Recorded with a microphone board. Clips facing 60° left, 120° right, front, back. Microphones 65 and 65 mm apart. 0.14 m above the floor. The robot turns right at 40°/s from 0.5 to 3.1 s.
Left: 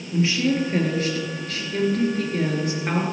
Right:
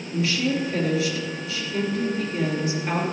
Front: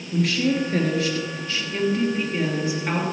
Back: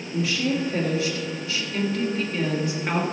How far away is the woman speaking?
About 3 m.